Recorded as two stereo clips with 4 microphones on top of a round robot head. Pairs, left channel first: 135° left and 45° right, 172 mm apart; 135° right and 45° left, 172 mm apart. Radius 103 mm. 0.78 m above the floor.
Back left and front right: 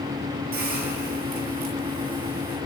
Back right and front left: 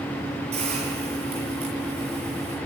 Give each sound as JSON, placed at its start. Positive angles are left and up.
{"t": 0.5, "sound": "a hiss", "azimuth_deg": -10, "distance_m": 7.0}